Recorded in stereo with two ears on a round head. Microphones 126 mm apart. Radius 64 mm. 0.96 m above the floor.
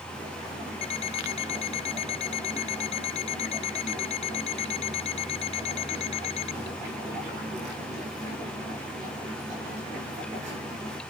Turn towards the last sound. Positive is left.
turn(degrees=45)  # may be behind; listen again after turning